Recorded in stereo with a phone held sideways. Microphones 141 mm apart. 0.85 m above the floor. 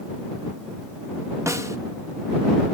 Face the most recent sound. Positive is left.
turn(degrees=-20)  # may be behind; listen again after turning